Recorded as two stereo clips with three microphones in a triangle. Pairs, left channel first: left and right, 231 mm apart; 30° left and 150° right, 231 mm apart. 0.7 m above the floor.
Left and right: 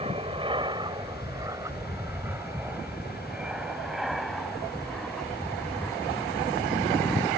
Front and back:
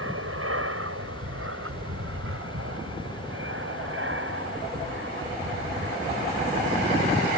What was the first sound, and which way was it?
An aircraft, 155° right.